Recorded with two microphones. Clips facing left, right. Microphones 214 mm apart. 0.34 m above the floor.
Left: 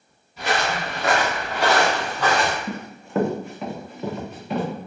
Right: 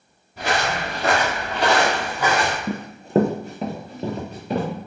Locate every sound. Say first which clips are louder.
0.4 s footsteps: right 1 dB; 55° right (ahead or behind), 1.6 m; by 2.6 s centre (ahead or behind), 1.4 m
2.7 s running footsteps: right 6 dB; 35° right (ahead or behind), 0.6 m; by 4.7 s 45° right (ahead or behind), 1.8 m